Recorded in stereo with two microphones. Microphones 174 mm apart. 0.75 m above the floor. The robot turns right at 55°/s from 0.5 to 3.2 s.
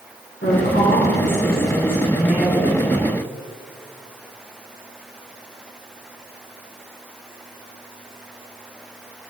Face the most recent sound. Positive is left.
turn(degrees=-125)